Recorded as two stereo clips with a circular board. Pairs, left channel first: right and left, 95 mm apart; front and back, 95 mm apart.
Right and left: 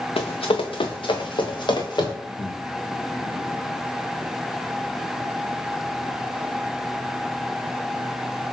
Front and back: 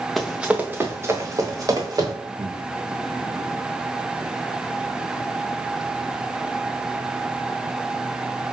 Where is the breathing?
115° right, 1.1 m.